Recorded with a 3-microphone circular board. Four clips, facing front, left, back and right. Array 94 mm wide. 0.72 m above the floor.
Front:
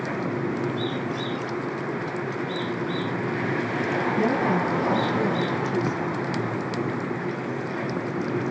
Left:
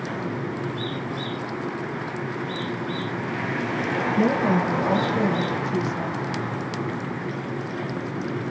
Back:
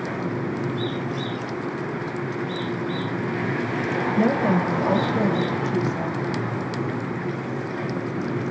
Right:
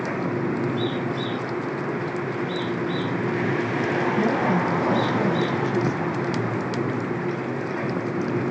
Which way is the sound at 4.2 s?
160° left.